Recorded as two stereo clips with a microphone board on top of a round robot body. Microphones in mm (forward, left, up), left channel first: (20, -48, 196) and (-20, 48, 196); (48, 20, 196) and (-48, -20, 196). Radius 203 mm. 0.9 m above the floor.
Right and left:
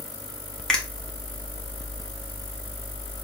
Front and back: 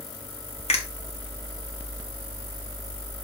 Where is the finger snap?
15° left, 1.9 m.